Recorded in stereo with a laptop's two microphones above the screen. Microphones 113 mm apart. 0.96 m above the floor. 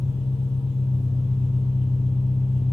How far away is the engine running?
About 2.5 m.